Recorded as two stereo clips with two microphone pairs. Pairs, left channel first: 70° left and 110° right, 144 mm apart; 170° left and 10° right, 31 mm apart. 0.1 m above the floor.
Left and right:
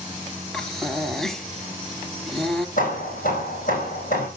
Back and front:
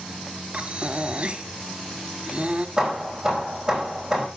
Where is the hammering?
60° left, 4.5 m.